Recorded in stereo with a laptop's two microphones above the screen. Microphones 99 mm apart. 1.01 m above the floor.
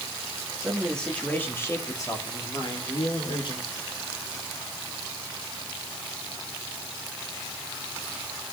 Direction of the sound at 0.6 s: 5° right (ahead or behind).